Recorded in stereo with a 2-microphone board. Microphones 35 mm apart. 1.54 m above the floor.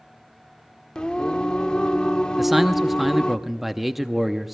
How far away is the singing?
About 0.7 m.